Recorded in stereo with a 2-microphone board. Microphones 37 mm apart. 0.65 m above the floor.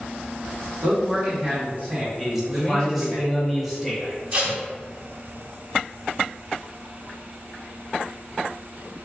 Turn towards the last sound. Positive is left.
turn(degrees=-40)  # may be behind; listen again after turning